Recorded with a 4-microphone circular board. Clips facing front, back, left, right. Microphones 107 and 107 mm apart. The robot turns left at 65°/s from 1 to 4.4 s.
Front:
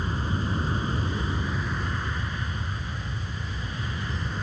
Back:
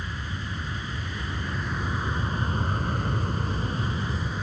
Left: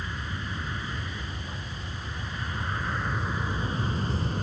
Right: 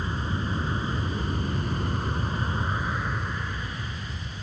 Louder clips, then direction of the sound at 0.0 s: Front 6 dB, right 5 dB; 45° right.